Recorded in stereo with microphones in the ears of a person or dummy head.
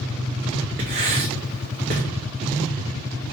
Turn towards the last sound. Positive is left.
turn(degrees=-35)  # may be behind; listen again after turning